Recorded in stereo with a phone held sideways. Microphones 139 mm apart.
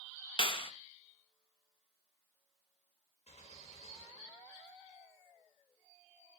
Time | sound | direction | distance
0.4 | a clap | 40° left (ahead or behind) | 1.0 m
3.3 | a gunshot | 55° left (ahead or behind) | 4.5 m